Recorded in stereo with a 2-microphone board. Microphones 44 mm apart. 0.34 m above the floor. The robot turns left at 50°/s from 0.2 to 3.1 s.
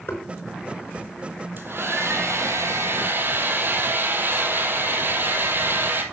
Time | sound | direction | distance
0.1 | knocking | 60° left (ahead or behind) | 5 m
1.6 | a hair dryer | 50° right | 2 m